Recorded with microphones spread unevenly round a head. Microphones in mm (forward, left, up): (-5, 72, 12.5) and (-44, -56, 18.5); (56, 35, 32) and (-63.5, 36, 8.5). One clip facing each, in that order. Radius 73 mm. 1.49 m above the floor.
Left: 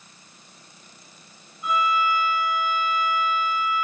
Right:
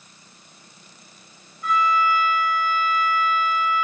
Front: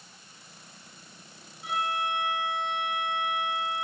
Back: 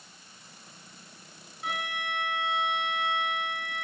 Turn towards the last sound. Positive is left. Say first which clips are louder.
# right 2 dB, front 5 dB
turn(degrees=145)